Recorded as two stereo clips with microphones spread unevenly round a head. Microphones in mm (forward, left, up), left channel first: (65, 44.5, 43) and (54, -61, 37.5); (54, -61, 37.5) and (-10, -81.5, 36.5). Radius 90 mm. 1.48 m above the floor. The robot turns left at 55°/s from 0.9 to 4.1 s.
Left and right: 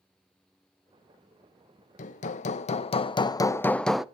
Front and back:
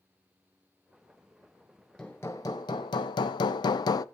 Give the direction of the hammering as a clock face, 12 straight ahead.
9 o'clock.